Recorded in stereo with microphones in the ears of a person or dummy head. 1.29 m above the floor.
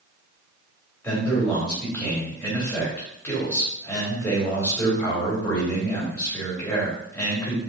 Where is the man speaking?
10° left (ahead or behind), 3.5 m.